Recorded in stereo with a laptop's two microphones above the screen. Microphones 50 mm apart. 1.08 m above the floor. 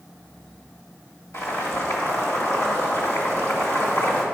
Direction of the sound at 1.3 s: 70° left (ahead or behind).